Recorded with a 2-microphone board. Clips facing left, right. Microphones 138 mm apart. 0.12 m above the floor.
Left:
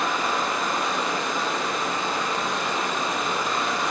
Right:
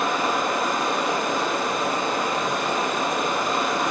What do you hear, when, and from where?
0.0 s running water: 55° right (ahead or behind), 1.2 m